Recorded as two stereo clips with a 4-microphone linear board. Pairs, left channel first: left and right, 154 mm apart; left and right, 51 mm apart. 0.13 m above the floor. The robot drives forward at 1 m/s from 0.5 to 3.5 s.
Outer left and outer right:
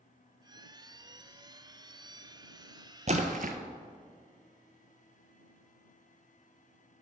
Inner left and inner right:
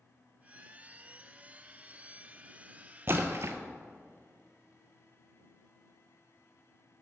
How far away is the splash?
About 0.9 m.